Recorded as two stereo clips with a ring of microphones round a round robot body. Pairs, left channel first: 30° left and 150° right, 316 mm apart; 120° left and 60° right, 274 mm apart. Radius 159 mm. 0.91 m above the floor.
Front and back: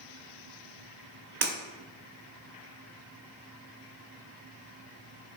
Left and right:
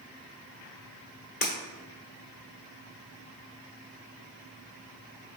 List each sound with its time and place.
1.4 s breaking glass: 170° left, 1.1 m